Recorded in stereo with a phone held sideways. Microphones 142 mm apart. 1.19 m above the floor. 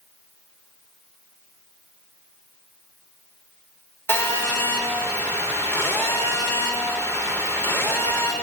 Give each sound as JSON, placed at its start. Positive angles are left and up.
{"t": 4.1, "sound": "a phone buzzing", "side_deg": 15, "distance_m": 3.5}